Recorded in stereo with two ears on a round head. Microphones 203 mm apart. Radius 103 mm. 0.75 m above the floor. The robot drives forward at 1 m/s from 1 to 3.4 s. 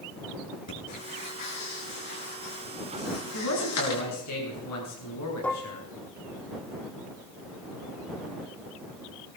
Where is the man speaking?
85° left, 7.5 m.